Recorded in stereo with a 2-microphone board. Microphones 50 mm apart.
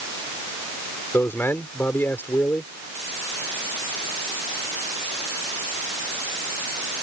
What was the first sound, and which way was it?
A man speaking, 50° left (ahead or behind).